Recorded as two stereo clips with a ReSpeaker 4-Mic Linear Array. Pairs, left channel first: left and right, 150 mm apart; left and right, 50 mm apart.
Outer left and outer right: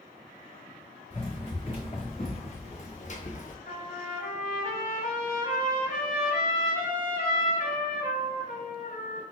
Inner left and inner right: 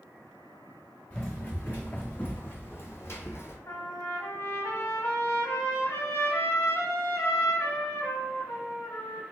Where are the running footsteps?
30° left (ahead or behind), 1.7 m; by 3.6 s 60° left (ahead or behind), 0.7 m.